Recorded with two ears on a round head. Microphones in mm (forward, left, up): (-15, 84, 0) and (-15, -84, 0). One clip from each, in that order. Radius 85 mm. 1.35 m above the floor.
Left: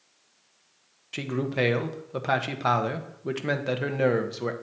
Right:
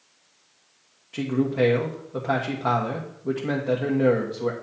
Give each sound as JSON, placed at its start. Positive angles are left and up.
{"t": 1.1, "sound": "a man speaking", "side_deg": 75, "distance_m": 1.0}